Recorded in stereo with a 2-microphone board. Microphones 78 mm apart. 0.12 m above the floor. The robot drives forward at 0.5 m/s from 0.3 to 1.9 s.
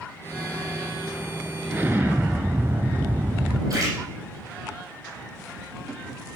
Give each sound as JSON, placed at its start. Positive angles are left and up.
{"t": 1.7, "sound": "an explosion", "side_deg": -25, "distance_m": 0.6}
{"t": 3.7, "sound": "a splash", "side_deg": -45, "distance_m": 4.0}